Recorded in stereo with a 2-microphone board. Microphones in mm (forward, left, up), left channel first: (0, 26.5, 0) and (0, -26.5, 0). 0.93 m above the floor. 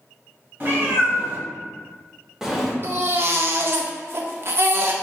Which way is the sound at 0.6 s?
35° right (ahead or behind).